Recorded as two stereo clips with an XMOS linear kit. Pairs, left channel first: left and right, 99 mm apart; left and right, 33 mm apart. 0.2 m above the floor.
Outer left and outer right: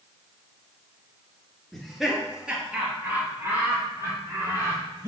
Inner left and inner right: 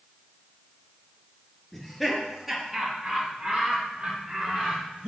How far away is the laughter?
About 2.5 m.